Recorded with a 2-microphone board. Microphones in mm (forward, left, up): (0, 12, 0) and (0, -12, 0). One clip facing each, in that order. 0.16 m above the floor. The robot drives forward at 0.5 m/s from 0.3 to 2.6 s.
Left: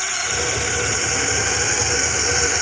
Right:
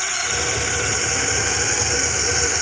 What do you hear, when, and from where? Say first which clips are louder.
0.0 s a drone: even; centre (ahead or behind); by 2.6 s 10° left (ahead or behind)